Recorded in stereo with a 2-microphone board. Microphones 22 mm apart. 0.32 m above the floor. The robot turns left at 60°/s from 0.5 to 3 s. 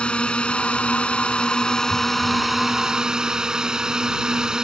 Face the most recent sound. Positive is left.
turn(degrees=-35)